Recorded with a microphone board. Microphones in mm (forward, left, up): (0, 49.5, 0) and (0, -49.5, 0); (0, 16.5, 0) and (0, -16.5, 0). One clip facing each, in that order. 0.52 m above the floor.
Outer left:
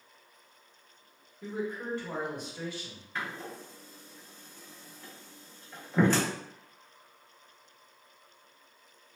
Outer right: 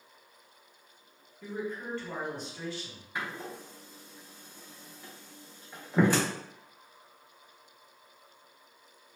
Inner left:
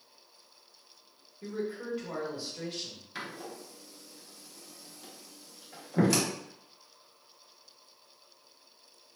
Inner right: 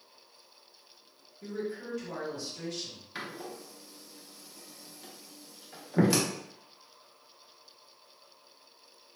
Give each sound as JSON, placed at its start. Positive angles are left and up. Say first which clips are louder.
{"t": 1.4, "sound": "a man speaking", "louder": "outer left 1 dB, inner left 1 dB", "side_deg": 15, "distance_m": 1.0}
{"t": 3.1, "sound": "a door slam", "louder": "even, inner right 1 dB", "side_deg": -10, "distance_m": 0.6}